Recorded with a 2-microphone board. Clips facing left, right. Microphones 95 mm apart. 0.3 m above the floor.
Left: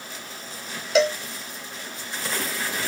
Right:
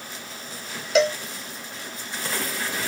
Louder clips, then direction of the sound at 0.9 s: Even; centre (ahead or behind).